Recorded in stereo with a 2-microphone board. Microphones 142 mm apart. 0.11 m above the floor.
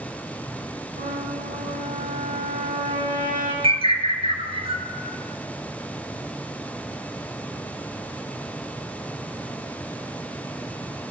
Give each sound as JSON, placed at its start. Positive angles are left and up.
{"t": 1.0, "sound": "a trumpet", "side_deg": -70, "distance_m": 4.0}
{"t": 3.6, "sound": "a bird", "side_deg": -45, "distance_m": 1.0}